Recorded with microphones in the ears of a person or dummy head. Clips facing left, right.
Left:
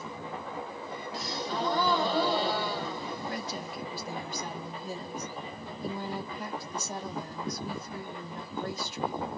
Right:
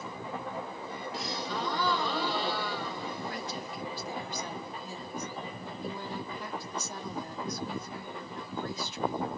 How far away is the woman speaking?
About 1.6 m.